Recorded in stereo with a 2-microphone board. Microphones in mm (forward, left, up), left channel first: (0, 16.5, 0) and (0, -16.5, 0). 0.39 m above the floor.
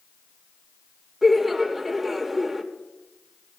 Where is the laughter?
5° right (ahead or behind), 0.8 m.